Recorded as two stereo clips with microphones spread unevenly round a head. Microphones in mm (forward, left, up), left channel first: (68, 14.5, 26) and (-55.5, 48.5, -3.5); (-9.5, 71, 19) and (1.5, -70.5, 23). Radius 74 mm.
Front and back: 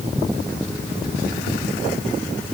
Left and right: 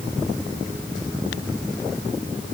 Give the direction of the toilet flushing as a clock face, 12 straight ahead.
No toilet flushing in this recording.